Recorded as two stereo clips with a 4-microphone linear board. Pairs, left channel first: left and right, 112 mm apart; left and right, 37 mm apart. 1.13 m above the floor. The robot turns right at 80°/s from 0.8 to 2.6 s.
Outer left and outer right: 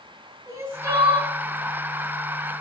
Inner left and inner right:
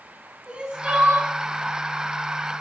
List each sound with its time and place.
0.5 s crying: 160° right, 2.5 m; by 1.3 s 120° right, 2.5 m